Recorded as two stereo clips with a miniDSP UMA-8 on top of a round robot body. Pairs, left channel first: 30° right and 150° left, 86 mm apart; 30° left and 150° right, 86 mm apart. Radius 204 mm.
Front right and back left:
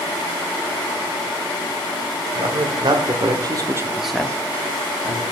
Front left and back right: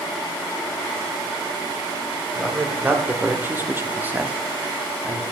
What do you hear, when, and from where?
2.4 s a man speaking: 140° left, 2.5 m; by 5.2 s 60° right, 1.8 m